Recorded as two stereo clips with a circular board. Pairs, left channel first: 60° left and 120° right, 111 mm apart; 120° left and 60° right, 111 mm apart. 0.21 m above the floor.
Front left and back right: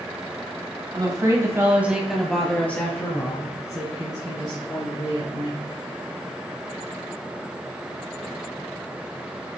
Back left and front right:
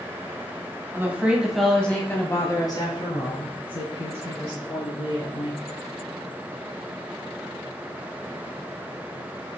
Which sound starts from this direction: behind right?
A woman speaking, at 0.9 s.